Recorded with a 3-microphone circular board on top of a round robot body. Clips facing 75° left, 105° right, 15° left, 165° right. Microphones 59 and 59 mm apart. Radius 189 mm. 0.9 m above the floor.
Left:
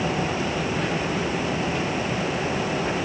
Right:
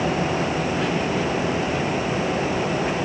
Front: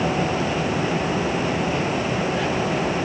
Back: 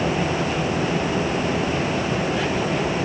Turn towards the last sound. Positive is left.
No sound to turn to.